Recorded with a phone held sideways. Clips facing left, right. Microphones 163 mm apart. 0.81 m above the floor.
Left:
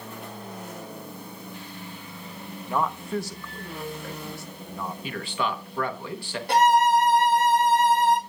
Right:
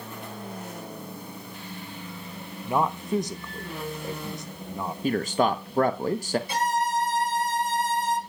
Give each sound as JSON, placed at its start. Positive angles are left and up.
{"t": 2.6, "sound": "a man speaking", "side_deg": -20, "distance_m": 0.6}
{"t": 5.0, "sound": "a man speaking", "side_deg": -45, "distance_m": 0.8}
{"t": 6.5, "sound": "a violin", "side_deg": 70, "distance_m": 1.4}